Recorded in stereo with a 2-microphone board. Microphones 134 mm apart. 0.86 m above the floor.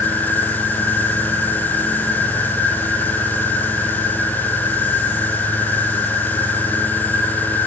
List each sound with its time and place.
0.0 s an insect: 15° left (ahead or behind), 3 m